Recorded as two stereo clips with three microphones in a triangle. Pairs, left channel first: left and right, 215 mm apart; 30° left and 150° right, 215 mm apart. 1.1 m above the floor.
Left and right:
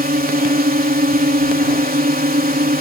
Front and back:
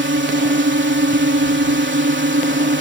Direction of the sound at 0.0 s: 130° right.